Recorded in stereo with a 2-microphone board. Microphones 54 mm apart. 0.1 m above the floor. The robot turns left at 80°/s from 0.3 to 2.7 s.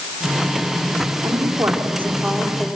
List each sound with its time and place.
1.2 s a woman speaking: 90° right, 5 m; by 2.7 s 155° left, 5 m